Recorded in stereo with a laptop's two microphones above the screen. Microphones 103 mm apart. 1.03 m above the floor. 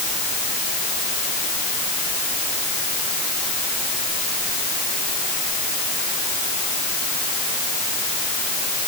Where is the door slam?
I don't hear a door slam.